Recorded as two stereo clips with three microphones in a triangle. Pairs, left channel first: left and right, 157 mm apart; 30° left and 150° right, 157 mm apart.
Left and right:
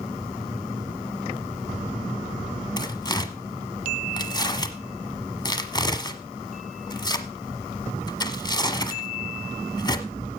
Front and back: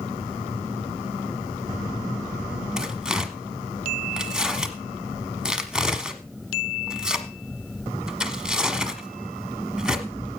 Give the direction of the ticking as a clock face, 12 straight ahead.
4 o'clock.